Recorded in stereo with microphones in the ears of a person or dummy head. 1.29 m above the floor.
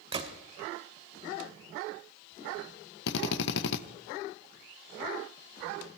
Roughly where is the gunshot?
Right.